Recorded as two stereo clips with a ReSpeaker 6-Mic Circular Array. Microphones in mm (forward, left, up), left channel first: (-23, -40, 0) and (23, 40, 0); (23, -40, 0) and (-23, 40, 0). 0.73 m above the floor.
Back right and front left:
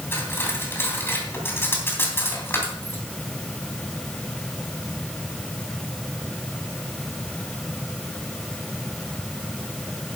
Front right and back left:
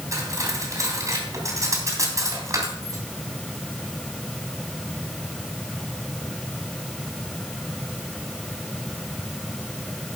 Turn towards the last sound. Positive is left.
turn(degrees=175)